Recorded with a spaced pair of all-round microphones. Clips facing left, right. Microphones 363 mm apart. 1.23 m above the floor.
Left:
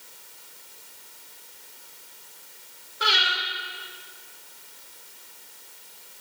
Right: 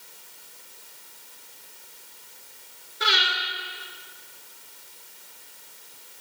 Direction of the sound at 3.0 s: 30° right (ahead or behind).